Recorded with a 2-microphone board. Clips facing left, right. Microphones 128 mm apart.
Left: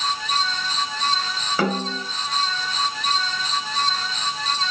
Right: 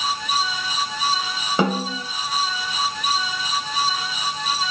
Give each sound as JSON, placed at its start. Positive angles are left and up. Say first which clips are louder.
{"t": 1.6, "sound": "a snare drum", "louder": "right 2 dB", "side_deg": -25, "distance_m": 4.5}